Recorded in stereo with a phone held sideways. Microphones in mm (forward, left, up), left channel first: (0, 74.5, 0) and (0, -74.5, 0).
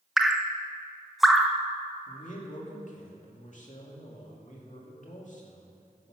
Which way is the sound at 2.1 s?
55° left (ahead or behind).